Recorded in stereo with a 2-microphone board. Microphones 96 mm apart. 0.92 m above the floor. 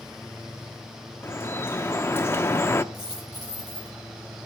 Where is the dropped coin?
45° right (ahead or behind), 9 m.